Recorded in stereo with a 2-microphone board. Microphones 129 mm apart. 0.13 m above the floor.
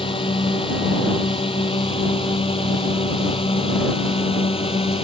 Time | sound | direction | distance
0.0 | a drone | 40° left (ahead or behind) | ?